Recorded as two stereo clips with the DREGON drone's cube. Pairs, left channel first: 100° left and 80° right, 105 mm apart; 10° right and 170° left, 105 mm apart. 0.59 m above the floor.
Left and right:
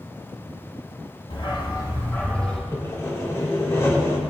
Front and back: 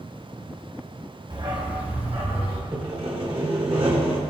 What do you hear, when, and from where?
1.3 s a dog barking: 130° left, 1.7 m; by 2.6 s 175° right, 2.5 m
2.7 s sawing: 155° left, 1.9 m